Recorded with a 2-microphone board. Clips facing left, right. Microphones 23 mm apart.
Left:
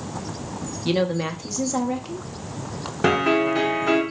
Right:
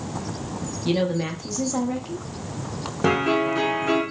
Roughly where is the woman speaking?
Centre.